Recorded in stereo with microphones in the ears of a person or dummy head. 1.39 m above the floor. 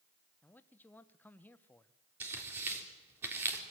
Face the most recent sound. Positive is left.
turn(degrees=-10)  # may be behind; listen again after turning